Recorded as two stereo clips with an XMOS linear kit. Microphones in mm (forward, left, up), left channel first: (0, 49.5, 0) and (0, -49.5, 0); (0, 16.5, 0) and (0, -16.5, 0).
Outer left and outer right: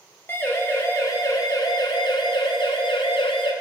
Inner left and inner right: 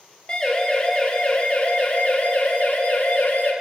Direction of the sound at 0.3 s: 25° left (ahead or behind).